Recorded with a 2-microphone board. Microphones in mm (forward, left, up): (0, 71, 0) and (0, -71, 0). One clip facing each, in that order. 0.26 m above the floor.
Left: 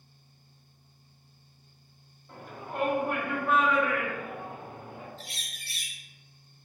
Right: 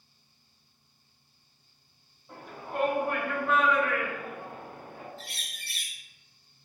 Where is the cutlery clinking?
No cutlery clinking in this recording.